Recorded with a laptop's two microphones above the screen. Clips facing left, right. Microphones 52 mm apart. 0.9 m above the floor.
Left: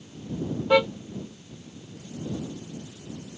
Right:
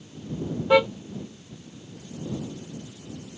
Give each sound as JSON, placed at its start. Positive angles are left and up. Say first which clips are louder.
{"t": 0.7, "sound": "a car horn", "louder": "right 2 dB", "side_deg": -5}